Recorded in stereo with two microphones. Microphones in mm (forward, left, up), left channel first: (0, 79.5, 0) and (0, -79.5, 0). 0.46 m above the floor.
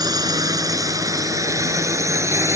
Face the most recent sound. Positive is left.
turn(degrees=-20)  # may be behind; listen again after turning